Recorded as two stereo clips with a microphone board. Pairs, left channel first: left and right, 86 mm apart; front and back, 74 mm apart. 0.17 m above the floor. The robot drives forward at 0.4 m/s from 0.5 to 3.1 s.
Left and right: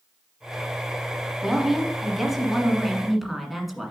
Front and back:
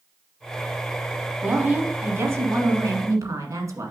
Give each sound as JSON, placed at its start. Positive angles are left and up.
{"t": 1.4, "sound": "a woman speaking", "azimuth_deg": -170, "distance_m": 1.1}